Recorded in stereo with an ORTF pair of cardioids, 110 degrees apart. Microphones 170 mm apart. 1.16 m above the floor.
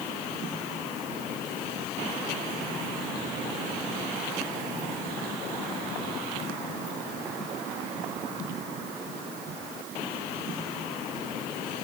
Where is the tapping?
I don't hear tapping.